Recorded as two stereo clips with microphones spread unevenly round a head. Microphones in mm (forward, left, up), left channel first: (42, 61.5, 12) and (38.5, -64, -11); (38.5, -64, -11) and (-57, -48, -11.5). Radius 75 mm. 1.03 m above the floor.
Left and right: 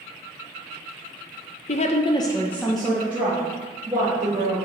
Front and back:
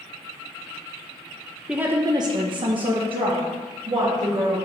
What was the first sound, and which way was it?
A woman speaking, 90° left.